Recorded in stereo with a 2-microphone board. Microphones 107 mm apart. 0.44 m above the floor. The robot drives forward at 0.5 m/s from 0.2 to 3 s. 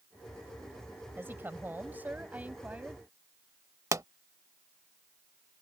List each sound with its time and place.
1.2 s a woman speaking: 20° right (ahead or behind); by 3.0 s 15° right (ahead or behind)
3.9 s a pop: 30° right (ahead or behind)